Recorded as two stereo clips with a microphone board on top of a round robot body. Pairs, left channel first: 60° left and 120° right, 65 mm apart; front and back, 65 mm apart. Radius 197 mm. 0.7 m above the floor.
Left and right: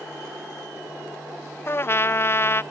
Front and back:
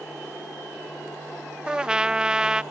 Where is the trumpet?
105° left.